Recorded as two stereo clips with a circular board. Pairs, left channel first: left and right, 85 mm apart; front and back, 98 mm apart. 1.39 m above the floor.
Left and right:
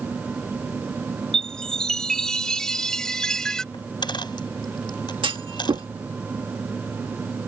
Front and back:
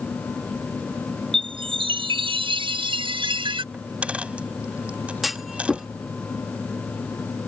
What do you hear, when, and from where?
1.3 s a chime: 170° left
3.7 s a dropped coin: 105° left
5.2 s a clunk: 90° right